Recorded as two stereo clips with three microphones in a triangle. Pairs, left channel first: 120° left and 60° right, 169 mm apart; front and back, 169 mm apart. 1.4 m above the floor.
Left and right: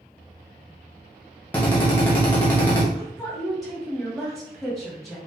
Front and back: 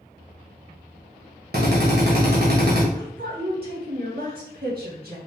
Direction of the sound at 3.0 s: 150° right.